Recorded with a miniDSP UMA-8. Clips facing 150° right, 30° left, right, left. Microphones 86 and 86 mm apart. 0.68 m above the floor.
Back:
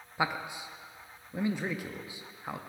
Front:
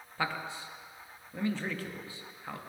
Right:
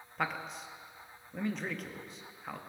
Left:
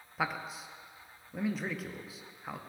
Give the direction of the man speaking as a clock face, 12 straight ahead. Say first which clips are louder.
Back 2 dB, left 1 dB; 6 o'clock.